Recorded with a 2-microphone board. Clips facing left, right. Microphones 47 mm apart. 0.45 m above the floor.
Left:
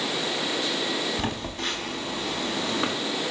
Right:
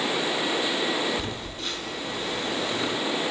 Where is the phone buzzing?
60° left (ahead or behind), 4 m.